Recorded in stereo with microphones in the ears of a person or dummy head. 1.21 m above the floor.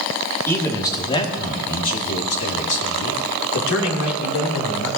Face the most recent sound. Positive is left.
turn(degrees=85)